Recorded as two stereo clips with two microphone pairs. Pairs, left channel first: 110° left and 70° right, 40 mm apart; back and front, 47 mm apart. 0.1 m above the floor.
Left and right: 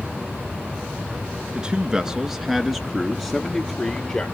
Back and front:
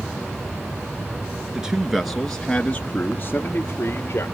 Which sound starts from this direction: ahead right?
A man speaking, at 1.5 s.